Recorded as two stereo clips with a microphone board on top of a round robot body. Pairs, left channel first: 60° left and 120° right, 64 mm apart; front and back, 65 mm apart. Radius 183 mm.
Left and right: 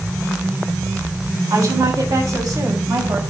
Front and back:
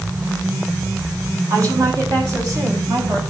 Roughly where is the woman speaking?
Behind right.